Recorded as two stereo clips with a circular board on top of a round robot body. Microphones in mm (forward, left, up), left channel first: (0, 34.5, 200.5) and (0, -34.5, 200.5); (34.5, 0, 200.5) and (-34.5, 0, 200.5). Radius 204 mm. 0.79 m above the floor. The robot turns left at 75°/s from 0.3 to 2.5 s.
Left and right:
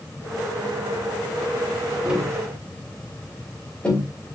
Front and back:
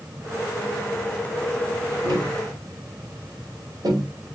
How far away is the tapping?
About 5 m.